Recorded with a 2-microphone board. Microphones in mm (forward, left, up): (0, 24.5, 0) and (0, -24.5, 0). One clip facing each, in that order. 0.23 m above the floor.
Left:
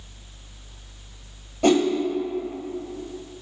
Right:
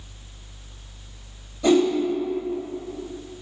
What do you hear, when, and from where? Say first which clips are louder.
1.6 s a whoosh: right 1 dB; 60° left (ahead or behind), 1.4 m